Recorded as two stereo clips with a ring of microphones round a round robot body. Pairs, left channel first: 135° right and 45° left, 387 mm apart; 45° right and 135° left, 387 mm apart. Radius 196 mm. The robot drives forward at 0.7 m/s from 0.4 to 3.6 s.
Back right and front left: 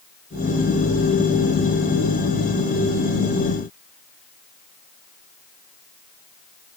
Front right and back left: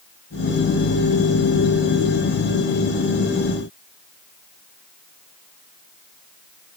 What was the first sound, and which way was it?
Only background noise.